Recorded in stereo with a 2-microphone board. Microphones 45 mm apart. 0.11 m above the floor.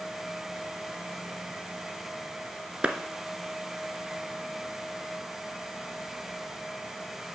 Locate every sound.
2.8 s a clap: 25° right (ahead or behind), 0.9 m